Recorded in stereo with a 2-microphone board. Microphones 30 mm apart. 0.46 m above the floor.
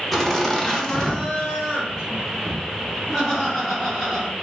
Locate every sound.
0.1 s laughter: 10° left (ahead or behind), 0.8 m; by 4.3 s 20° left (ahead or behind), 2.5 m